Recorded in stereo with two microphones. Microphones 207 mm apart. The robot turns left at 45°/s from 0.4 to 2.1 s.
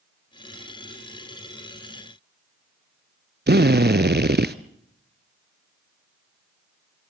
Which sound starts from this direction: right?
A drill, at 3.5 s.